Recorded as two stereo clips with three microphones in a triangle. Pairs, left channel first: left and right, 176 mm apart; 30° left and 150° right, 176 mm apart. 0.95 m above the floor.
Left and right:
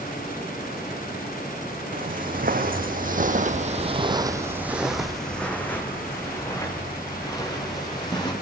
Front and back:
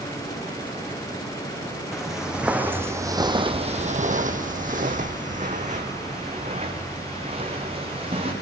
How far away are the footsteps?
About 2.5 m.